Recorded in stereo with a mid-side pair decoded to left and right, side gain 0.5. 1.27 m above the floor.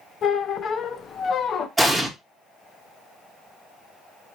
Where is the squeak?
50° left, 0.6 m.